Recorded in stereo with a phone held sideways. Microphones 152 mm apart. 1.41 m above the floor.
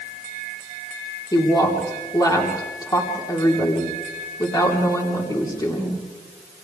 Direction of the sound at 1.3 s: 25° left (ahead or behind).